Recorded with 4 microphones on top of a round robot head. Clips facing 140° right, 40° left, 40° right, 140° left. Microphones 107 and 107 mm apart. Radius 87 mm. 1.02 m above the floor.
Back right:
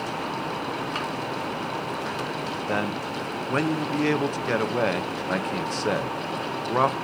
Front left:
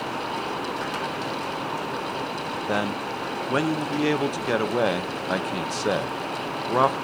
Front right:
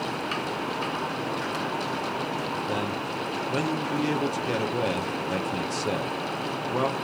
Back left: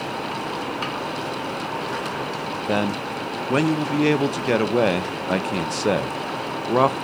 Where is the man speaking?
120° left, 0.8 m.